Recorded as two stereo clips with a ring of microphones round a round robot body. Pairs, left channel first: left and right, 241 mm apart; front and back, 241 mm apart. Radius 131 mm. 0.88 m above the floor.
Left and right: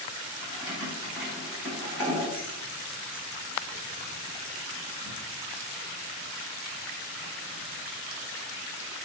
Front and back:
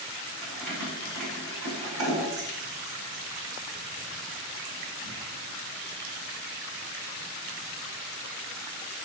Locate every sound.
0.4 s keys jangling: 170° left, 1.9 m